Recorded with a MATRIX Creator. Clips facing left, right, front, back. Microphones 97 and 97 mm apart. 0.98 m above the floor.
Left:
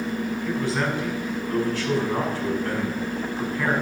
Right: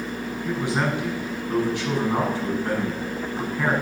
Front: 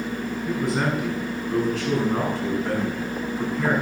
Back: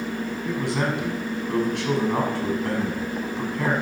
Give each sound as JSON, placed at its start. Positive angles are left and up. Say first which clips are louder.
{"t": 0.5, "sound": "a man speaking", "louder": "right 2 dB, front 2 dB", "azimuth_deg": -165, "distance_m": 6.0}